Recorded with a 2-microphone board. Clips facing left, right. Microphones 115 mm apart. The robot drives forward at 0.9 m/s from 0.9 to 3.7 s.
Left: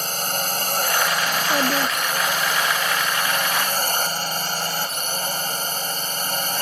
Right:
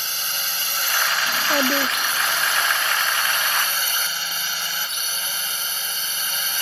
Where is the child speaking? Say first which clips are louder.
Even; 10° right (ahead or behind); by 2.8 s 5° right (ahead or behind).